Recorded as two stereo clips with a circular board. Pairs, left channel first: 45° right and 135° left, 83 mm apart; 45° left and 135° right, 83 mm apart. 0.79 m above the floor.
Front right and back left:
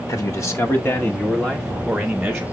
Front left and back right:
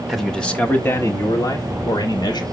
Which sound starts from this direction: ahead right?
A man speaking, at 0.1 s.